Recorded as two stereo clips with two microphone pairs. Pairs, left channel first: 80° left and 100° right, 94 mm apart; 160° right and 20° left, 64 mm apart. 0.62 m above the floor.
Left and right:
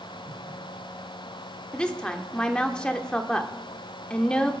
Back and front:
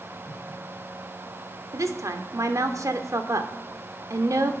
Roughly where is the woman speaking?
Ahead.